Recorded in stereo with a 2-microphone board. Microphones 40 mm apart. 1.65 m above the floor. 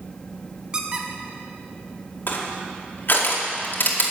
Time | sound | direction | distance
0.7 | a squeak | 25° right (ahead or behind) | 1.2 m
2.3 | crushing | 50° left (ahead or behind) | 2.0 m